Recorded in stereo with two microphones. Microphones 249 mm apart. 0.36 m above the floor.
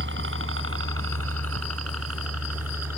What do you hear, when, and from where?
0.0 s a helicopter: 50° right (ahead or behind); by 3.0 s 75° right (ahead or behind)